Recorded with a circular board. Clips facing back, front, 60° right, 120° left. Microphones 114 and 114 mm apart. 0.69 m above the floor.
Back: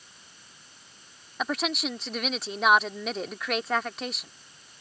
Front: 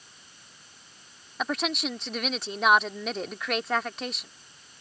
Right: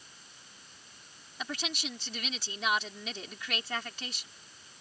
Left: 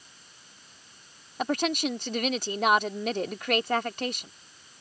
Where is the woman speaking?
90° left.